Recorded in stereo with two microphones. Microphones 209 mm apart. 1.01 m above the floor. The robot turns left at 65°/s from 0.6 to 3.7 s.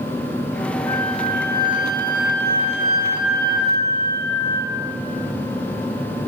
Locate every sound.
0.9 s a flute: 90° right, 3.5 m; by 4.7 s 85° left, 3.5 m